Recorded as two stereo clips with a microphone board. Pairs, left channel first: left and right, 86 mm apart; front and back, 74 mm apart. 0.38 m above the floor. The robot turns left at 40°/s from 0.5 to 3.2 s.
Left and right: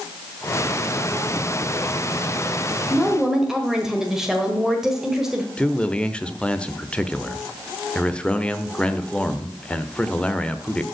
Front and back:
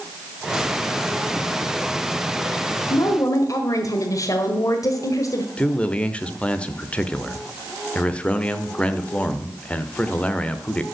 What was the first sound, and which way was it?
A woman speaking, 5° left.